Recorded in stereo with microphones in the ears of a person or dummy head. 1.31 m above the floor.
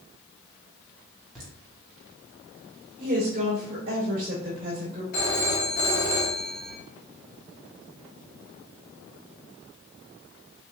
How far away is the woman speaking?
About 2 m.